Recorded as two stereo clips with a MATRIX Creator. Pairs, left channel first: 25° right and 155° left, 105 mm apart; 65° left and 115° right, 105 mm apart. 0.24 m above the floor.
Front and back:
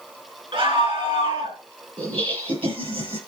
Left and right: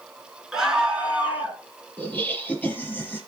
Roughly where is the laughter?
Behind left.